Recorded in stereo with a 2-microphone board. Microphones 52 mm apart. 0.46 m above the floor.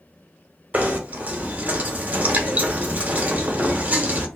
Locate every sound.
0.7 s knocking: 30° right (ahead or behind), 0.8 m